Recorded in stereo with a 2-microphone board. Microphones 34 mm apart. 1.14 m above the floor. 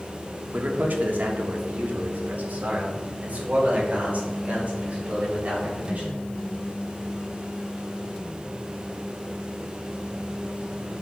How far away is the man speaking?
About 1.5 m.